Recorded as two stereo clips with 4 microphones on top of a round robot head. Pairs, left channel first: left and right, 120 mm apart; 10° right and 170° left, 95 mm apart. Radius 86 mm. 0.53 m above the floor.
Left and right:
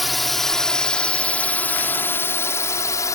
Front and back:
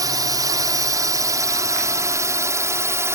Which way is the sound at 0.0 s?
Straight behind.